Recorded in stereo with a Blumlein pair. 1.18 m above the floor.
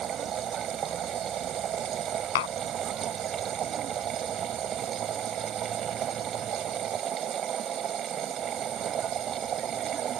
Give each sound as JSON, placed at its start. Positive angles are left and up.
{"t": 0.0, "sound": "a machine running", "azimuth_deg": -25}
{"t": 2.4, "sound": "tapping", "azimuth_deg": 55}